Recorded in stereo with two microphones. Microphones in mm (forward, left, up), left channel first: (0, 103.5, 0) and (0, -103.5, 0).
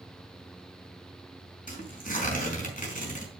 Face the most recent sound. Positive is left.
turn(degrees=40)  # may be behind; listen again after turning